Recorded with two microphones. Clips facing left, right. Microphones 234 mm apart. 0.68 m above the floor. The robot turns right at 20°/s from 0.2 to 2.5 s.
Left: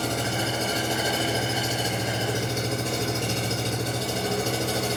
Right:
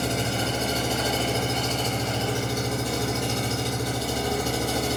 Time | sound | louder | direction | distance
0.0 | an engine running | right 1 dB | 20° right | 4 m